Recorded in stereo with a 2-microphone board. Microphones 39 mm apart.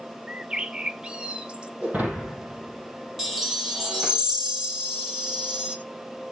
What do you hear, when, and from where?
0.3 s a bird: 25° right (ahead or behind), 0.7 m
1.8 s breaking glass: 45° right (ahead or behind), 7 m
3.2 s a chime: 15° right (ahead or behind), 1.5 m